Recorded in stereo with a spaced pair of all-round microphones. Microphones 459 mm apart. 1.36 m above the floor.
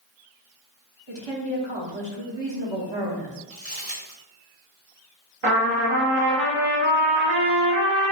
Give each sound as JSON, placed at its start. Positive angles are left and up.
{"t": 1.1, "sound": "a woman speaking", "side_deg": -60, "distance_m": 1.0}
{"t": 3.5, "sound": "crumpling", "side_deg": -35, "distance_m": 1.7}
{"t": 5.4, "sound": "a trumpet", "side_deg": -70, "distance_m": 0.9}